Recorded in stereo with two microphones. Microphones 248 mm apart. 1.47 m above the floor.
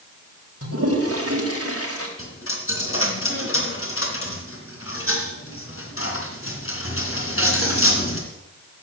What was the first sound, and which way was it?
A toilet flushing, 65° right (ahead or behind).